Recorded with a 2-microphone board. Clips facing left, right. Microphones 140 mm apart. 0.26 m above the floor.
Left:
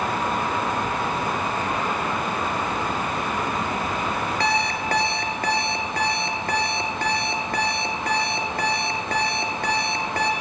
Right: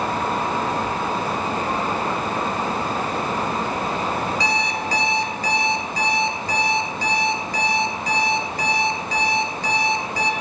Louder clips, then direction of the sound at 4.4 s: Even; 60° left (ahead or behind).